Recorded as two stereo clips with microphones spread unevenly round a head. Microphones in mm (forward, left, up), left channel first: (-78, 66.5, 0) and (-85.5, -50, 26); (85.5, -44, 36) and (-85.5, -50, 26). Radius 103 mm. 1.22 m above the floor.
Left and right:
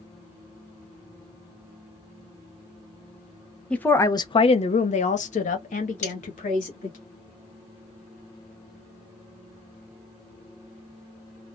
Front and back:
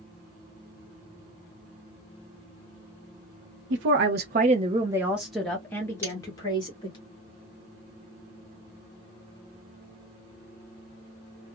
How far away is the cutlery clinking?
About 1.6 m.